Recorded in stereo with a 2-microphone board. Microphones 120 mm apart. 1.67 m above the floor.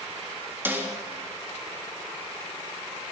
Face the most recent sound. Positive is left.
turn(degrees=-15)  # may be behind; listen again after turning